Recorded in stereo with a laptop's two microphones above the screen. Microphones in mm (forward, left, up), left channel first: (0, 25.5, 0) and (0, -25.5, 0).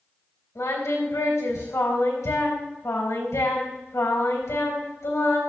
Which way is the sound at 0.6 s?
75° left (ahead or behind).